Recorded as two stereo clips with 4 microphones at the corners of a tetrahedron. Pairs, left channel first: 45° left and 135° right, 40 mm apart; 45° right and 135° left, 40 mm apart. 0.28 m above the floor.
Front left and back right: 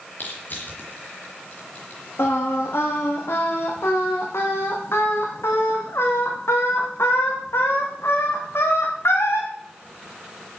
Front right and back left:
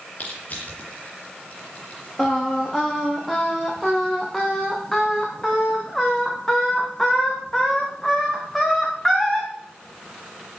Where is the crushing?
5° left, 5.5 m.